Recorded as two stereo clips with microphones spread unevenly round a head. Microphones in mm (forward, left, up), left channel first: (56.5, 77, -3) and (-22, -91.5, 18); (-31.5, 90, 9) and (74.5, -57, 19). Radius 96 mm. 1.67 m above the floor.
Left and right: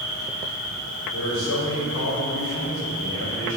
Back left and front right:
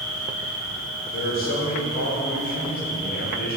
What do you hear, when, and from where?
0.0 s an insect: 155° left, 1.4 m
1.1 s a man speaking: 85° left, 0.8 m